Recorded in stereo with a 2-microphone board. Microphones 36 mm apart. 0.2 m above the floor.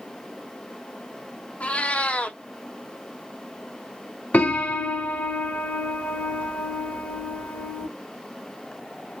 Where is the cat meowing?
40° left (ahead or behind), 0.5 m.